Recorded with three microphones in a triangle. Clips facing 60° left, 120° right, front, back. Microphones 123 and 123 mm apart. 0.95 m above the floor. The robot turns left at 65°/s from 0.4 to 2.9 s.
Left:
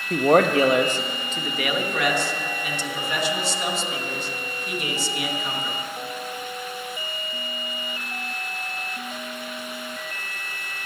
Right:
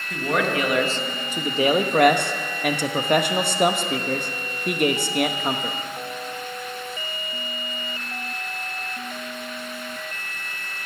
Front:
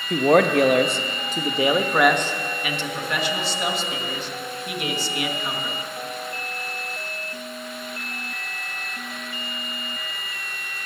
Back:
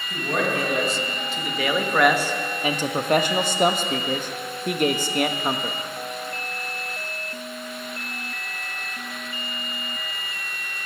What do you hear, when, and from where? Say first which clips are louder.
0.1 s a man speaking: left 7 dB, front 9 dB; 20° left, 0.8 m; by 5.8 s 145° right, 0.8 m